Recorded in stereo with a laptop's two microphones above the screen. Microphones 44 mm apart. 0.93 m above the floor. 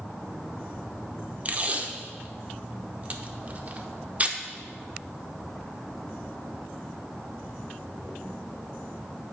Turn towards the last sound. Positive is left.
turn(degrees=-35)  # may be behind; listen again after turning